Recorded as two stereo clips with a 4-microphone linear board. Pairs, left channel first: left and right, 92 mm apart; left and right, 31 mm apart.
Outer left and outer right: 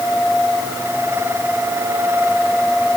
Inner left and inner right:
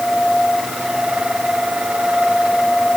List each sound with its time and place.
Only background noise.